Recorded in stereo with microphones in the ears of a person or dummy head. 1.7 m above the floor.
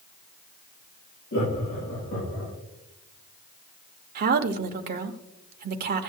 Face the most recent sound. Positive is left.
turn(degrees=-55)  # may be behind; listen again after turning